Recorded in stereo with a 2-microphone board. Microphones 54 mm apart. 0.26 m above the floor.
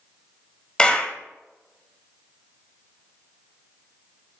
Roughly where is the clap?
Centre.